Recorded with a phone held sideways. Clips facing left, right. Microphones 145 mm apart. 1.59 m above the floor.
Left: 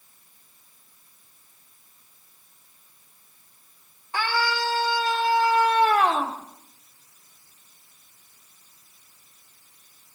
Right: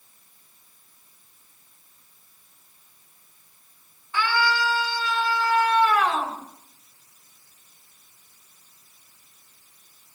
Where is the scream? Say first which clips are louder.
Right 2 dB; 40° left (ahead or behind), 6.5 m; by 6.4 s 30° left (ahead or behind), 6 m.